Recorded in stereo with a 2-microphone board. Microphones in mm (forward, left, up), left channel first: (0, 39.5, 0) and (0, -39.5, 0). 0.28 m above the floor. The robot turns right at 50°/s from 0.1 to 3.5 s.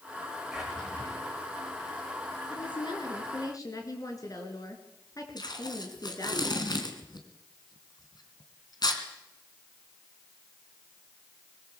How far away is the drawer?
About 5.5 m.